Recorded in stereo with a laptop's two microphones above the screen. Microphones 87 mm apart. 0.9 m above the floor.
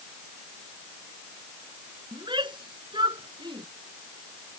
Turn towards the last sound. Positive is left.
turn(degrees=-60)  # may be behind; listen again after turning